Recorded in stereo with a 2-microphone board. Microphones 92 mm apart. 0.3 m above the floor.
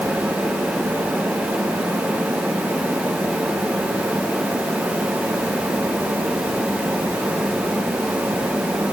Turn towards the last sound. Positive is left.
No sound to turn to.